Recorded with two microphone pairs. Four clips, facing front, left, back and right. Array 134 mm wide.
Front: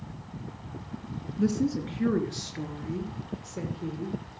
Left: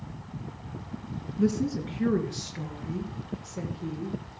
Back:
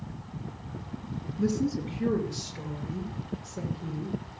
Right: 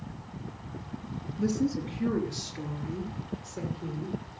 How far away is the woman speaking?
About 2.5 m.